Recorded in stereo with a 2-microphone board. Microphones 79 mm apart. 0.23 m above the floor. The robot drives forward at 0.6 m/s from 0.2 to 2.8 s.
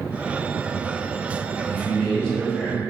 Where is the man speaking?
15° left (ahead or behind), 0.9 m; by 2.8 s 10° left (ahead or behind), 1.3 m.